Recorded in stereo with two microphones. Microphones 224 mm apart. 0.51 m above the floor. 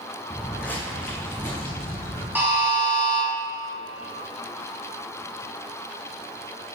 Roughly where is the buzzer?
Centre.